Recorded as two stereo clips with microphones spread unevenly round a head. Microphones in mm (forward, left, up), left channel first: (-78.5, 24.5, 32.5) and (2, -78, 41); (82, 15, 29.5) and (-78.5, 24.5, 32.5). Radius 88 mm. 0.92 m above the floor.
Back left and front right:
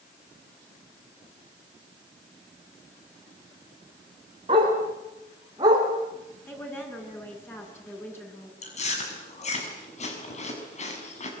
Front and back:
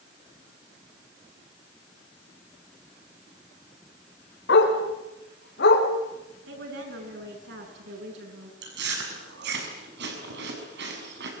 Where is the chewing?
160° left, 6.5 m.